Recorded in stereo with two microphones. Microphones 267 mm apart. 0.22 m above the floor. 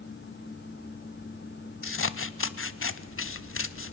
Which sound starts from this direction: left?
Scissors, at 1.8 s.